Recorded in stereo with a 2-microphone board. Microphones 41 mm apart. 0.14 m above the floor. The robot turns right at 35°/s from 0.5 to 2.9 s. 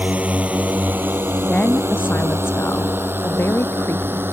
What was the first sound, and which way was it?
A drone, 35° right (ahead or behind).